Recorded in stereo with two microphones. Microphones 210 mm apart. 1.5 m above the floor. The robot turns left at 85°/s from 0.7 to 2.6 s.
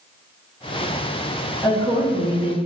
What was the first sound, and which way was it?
A woman speaking, 170° left.